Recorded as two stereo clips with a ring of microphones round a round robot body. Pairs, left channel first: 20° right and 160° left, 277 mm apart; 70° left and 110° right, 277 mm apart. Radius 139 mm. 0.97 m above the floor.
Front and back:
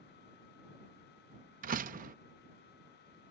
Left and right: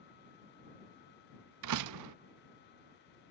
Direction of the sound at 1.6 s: 140° right.